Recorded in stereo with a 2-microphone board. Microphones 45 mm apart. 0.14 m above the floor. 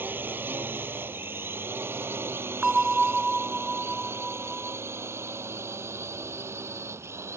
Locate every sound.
0.0 s a drone: 45° right (ahead or behind); by 7.4 s 70° right (ahead or behind)
2.6 s a bell: 10° right (ahead or behind)